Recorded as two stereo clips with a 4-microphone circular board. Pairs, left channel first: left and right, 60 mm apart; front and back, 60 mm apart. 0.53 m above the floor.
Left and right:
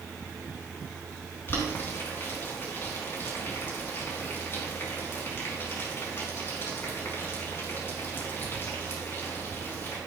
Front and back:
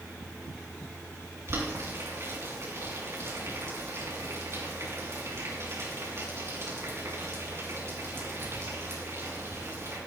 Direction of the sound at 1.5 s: 140° left.